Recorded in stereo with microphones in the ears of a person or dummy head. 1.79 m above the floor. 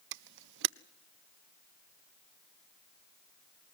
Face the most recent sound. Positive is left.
turn(degrees=-70)  # may be behind; listen again after turning